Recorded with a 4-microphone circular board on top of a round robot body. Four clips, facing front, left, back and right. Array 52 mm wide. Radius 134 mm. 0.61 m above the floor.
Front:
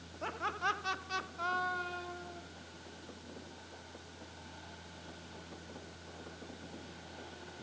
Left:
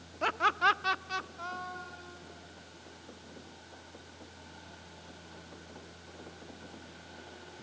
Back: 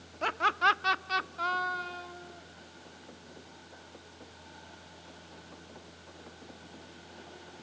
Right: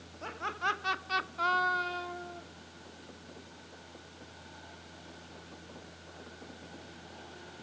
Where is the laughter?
140° left, 1.8 m; by 2.4 s 90° right, 2.5 m.